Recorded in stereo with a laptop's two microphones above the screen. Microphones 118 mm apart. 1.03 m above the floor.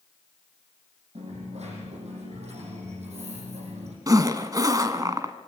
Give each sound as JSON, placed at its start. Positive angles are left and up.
{"t": 1.1, "sound": "a dropped coin", "side_deg": -65, "distance_m": 7.0}
{"t": 4.1, "sound": "a zipper", "side_deg": -30, "distance_m": 1.6}